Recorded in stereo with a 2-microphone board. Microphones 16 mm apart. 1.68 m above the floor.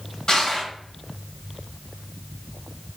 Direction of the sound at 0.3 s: 45° left (ahead or behind).